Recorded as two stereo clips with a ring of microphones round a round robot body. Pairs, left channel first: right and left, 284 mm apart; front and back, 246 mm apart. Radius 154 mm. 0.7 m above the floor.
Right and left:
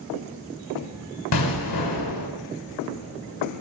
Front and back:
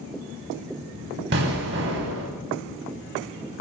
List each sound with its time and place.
1.3 s an explosion: 125° right, 4 m